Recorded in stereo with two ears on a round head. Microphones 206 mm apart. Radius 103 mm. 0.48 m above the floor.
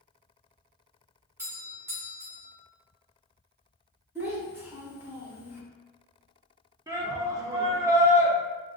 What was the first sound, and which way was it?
A doorbell, 10° right (ahead or behind).